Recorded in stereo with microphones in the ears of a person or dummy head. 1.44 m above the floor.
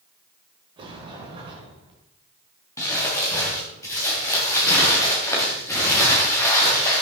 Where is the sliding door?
25° right (ahead or behind), 1.7 m.